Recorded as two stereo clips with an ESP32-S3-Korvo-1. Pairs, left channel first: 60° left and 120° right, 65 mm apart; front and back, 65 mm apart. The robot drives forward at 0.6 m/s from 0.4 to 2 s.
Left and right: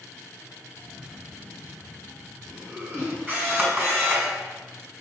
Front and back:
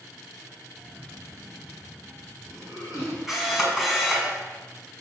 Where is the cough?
175° right, 1.0 m; by 3.2 s straight behind, 1.5 m.